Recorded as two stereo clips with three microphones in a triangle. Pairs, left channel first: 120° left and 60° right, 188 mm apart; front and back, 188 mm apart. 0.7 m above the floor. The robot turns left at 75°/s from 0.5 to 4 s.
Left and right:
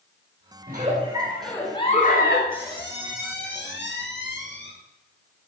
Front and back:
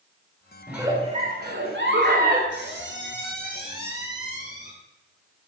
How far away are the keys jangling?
No keys jangling in this recording.